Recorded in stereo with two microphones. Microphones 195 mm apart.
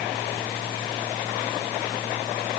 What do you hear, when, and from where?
Only background noise.